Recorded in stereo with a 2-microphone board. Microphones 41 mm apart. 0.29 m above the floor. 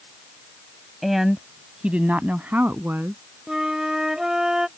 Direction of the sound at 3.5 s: 15° right (ahead or behind).